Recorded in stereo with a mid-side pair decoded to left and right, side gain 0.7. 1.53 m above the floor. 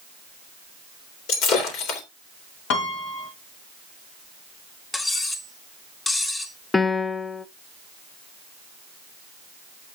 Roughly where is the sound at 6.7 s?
Ahead.